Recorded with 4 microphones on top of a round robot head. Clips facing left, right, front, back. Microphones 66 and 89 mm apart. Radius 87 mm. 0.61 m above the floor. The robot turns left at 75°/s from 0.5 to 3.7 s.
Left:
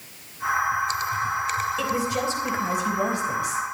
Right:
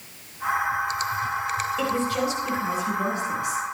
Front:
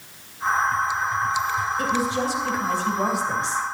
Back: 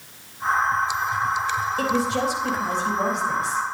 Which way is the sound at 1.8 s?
175° right.